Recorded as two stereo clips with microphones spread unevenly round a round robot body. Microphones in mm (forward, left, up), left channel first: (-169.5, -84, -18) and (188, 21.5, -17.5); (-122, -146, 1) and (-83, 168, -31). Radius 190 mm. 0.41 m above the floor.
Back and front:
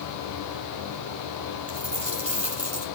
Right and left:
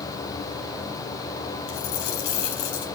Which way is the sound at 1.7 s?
70° right.